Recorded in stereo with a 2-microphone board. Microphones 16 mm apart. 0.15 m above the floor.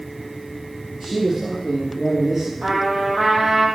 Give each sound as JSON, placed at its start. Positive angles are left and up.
{"t": 1.0, "sound": "a man speaking", "side_deg": -25, "distance_m": 3.0}
{"t": 2.6, "sound": "a trumpet", "side_deg": -30, "distance_m": 3.5}